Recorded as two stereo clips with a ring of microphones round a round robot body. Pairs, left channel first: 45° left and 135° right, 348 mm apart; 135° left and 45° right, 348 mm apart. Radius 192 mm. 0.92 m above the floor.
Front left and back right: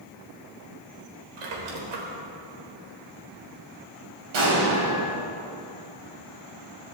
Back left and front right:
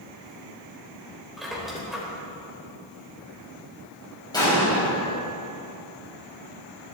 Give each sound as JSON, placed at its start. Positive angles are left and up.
{"t": 1.4, "sound": "a squeak", "azimuth_deg": -135, "distance_m": 3.5}
{"t": 4.3, "sound": "an explosion", "azimuth_deg": -145, "distance_m": 5.5}